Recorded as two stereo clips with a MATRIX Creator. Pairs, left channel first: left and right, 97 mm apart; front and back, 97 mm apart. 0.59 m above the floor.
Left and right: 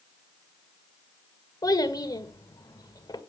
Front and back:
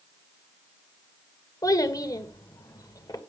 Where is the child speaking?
45° left, 1.6 m.